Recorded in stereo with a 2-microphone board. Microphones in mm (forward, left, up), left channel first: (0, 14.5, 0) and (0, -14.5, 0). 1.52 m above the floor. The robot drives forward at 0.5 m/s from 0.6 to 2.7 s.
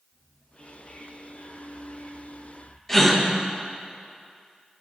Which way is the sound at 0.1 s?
40° left (ahead or behind).